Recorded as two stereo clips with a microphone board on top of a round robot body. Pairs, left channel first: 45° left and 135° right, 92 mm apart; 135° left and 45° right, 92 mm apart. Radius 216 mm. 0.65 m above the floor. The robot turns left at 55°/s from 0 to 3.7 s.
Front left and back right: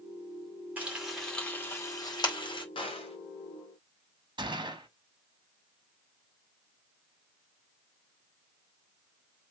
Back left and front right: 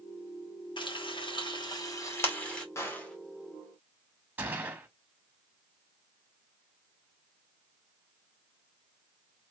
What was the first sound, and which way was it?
Frying, 155° left.